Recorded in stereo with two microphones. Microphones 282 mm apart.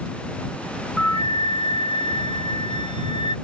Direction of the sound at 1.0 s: 80° left.